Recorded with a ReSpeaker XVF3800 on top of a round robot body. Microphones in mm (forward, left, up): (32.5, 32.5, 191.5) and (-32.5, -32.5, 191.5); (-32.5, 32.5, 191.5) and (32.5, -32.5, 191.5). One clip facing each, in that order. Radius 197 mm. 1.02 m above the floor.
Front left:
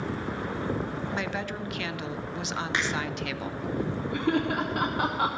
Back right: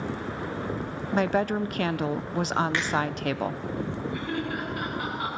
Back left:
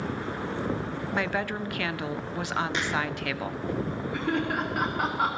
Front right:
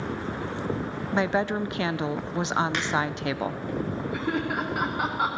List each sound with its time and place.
1.1 s a woman speaking: 105° right, 0.7 m
2.7 s a finger snap: 25° right, 8 m
4.1 s laughter: 40° left, 1.5 m